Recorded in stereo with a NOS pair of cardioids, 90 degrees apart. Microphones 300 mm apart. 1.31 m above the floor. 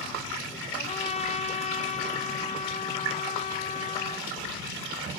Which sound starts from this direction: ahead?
A trumpet, at 0.8 s.